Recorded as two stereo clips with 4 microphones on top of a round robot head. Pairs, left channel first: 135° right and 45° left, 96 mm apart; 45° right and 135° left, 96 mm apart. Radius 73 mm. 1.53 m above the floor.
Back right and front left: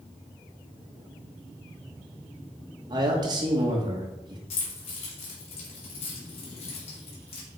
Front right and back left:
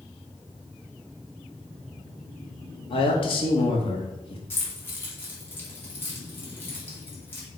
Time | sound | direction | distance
2.9 | a man speaking | 5° right | 1.9 m
4.5 | keys jangling | 110° right | 2.5 m